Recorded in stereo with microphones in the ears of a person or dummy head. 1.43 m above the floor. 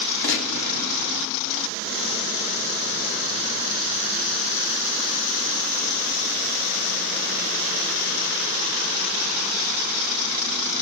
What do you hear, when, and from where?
0.2 s a gunshot: 65° left (ahead or behind), 0.7 m